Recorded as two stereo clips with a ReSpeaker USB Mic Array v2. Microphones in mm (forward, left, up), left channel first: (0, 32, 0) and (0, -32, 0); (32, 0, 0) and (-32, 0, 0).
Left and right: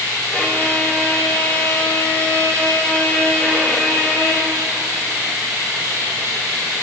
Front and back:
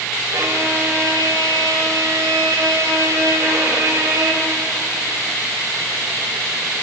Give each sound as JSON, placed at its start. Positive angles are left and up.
{"t": 0.3, "sound": "a violin", "azimuth_deg": 155, "distance_m": 1.8}